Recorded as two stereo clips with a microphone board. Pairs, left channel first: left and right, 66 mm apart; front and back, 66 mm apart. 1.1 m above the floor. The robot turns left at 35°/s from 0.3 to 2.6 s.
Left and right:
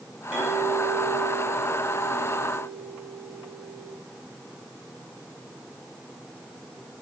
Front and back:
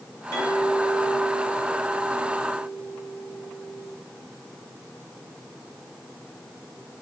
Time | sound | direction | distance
0.3 | a clink | 20° right | 4 m